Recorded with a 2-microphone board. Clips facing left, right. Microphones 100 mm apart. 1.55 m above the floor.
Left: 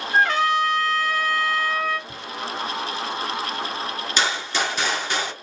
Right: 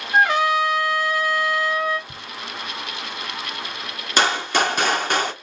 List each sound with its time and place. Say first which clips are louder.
0.1 s a trumpet: right 2 dB; 15° right (ahead or behind), 1.5 m
2.1 s ticking: left 2 dB; 65° right (ahead or behind), 1.5 m
4.2 s a gunshot: right 6 dB; 50° right (ahead or behind), 0.9 m